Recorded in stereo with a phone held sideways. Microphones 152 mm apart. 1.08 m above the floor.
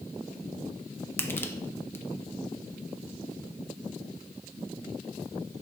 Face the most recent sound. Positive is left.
turn(degrees=15)  # may be behind; listen again after turning